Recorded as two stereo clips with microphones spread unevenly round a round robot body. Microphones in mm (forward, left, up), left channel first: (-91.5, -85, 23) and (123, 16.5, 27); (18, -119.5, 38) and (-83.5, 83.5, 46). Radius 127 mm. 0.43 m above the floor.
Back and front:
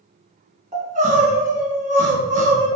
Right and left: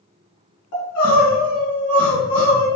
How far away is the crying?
About 1.8 m.